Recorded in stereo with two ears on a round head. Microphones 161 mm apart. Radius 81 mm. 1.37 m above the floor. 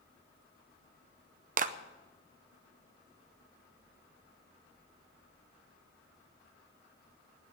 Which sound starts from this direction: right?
A clap, at 1.6 s.